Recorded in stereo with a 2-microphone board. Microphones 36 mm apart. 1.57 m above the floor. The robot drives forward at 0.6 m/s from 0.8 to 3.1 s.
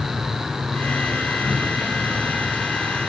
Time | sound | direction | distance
0.0 | an insect | 5° right (ahead or behind) | 6.5 m